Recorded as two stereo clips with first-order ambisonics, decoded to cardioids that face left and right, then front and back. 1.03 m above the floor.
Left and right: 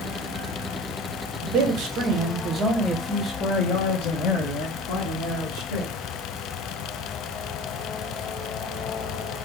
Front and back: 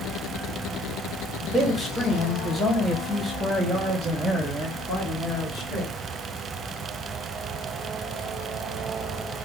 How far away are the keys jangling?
I don't hear keys jangling.